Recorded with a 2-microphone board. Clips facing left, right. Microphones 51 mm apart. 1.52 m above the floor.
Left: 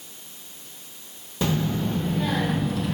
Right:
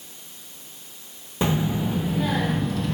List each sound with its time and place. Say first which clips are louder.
1.4 s a child speaking: right 1 dB; 20° right (ahead or behind), 0.9 m; by 2.9 s 5° left (ahead or behind), 1.6 m